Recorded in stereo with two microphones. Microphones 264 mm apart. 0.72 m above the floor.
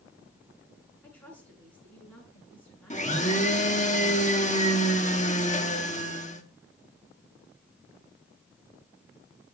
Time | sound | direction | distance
1.0 | a woman speaking | 5° left (ahead or behind) | 8.5 m
2.9 | a blender | 25° left (ahead or behind) | 1.4 m